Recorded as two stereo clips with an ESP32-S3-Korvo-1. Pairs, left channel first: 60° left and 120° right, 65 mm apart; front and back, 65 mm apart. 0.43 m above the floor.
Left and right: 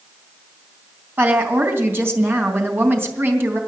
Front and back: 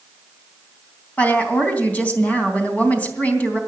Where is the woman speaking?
65° right, 3 m.